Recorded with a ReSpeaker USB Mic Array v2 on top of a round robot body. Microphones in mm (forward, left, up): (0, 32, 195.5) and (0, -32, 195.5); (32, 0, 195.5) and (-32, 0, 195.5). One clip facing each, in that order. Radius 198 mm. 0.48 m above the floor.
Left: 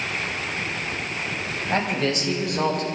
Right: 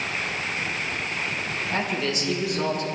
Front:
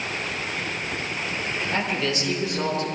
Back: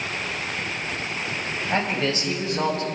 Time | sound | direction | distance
1.7 | a man speaking | 125° left | 4.5 m